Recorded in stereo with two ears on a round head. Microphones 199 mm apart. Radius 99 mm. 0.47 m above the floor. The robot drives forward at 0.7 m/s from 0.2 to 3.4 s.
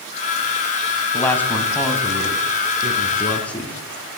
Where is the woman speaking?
10° left (ahead or behind), 3 m; by 3.7 s 5° left (ahead or behind), 4.5 m.